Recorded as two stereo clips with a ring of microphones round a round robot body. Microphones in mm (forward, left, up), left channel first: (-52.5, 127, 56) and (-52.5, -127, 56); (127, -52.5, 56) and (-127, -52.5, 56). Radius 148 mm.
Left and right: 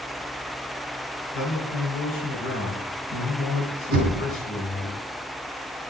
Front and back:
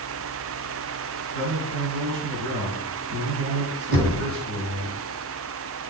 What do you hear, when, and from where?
1.3 s a man speaking: 130° left, 6 m
3.9 s knocking: 140° right, 3.5 m